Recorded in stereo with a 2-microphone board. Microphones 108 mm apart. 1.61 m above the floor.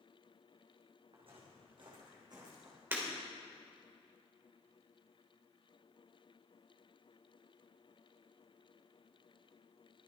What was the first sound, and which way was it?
Footsteps, 60° right (ahead or behind).